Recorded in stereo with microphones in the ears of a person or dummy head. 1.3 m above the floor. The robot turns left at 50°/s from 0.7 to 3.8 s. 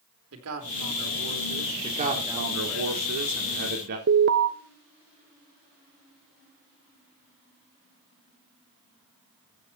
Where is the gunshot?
No gunshot in this recording.